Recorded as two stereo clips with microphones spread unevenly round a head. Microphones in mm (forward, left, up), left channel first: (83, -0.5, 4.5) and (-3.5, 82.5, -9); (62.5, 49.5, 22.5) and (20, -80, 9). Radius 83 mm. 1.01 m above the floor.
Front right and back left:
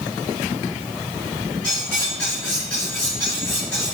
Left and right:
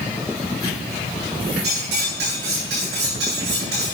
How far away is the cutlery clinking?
About 6.5 m.